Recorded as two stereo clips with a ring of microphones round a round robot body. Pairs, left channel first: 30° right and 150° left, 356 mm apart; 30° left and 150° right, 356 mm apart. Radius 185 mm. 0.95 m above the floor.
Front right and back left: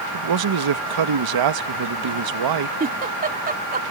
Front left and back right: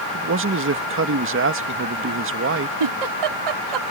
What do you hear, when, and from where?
0.1 s a man speaking: 160° left
2.8 s a giggle: 145° right